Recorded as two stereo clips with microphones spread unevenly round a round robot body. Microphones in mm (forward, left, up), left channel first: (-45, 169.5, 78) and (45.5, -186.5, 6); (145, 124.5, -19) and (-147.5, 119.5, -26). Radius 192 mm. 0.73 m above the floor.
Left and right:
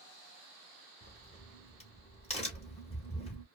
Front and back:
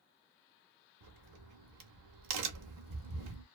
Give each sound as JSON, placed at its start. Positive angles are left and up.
{"t": 1.0, "sound": "a crack", "azimuth_deg": 175, "distance_m": 0.7}